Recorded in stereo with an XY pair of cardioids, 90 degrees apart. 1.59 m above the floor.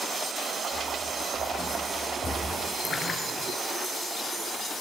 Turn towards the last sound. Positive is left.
turn(degrees=55)